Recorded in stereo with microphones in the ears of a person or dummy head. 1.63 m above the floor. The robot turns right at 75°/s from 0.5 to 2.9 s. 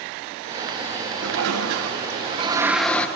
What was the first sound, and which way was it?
A toilet flushing, 120° right.